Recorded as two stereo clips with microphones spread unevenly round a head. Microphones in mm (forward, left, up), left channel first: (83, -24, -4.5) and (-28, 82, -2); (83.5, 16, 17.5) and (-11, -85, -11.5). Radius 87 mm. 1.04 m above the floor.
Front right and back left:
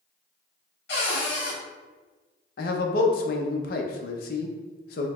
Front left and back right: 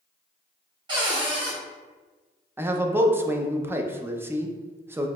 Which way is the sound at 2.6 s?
65° right.